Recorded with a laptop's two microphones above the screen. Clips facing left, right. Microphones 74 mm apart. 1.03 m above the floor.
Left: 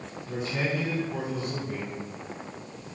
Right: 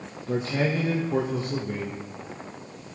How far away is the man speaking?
About 1.2 m.